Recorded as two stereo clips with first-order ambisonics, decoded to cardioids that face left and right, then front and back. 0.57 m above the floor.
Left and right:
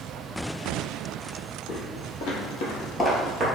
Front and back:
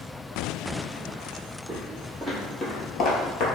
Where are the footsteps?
95° left, 1.7 m; by 3.5 s 25° right, 0.8 m.